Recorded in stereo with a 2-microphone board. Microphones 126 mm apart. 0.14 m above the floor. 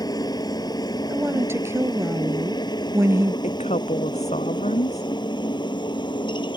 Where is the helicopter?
35° left (ahead or behind); by 6.6 s 40° left (ahead or behind).